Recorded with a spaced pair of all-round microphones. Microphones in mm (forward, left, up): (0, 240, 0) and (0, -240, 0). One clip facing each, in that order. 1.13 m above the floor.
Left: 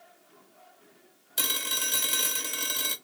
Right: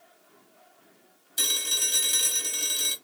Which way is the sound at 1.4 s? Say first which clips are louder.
Left 1 dB; 70° left (ahead or behind).